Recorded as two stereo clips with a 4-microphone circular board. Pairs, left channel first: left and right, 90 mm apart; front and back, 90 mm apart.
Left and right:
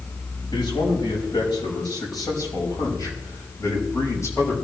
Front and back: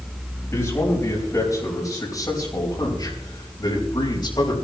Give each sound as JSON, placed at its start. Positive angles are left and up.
{"t": 0.5, "sound": "a man speaking", "azimuth_deg": 60, "distance_m": 5.0}